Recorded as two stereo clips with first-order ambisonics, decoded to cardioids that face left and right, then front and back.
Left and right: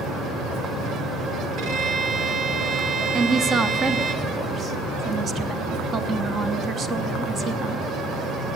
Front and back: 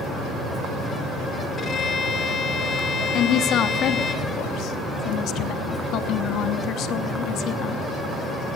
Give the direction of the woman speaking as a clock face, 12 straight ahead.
1 o'clock.